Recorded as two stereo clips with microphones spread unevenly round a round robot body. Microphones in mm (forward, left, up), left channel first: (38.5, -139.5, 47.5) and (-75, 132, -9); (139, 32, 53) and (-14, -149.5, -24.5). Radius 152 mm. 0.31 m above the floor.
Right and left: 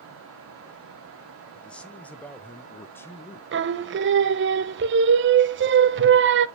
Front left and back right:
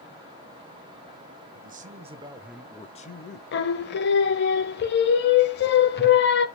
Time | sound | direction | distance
1.5 | a man speaking | 160° right | 1.6 m
3.5 | singing | 110° left | 0.6 m